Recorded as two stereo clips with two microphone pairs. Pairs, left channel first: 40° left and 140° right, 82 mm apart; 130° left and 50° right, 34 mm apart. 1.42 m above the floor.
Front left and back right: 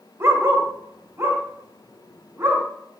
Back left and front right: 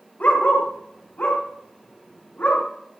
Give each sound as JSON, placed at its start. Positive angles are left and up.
{"t": 0.2, "sound": "a dog barking", "azimuth_deg": 165, "distance_m": 2.0}